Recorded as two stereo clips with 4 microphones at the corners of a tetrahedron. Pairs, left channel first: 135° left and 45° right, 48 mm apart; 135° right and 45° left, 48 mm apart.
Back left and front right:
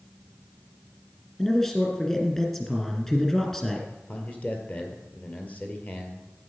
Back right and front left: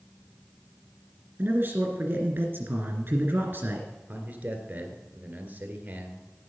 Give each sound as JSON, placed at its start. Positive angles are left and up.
{"t": 1.4, "sound": "a man speaking", "azimuth_deg": 60, "distance_m": 2.0}
{"t": 4.1, "sound": "a man speaking", "azimuth_deg": 90, "distance_m": 1.7}